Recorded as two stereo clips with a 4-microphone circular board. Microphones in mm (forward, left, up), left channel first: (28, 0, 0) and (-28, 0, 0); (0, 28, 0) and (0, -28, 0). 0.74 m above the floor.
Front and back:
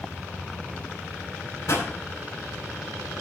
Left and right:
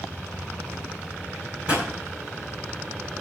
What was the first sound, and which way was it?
A pop, 20° right.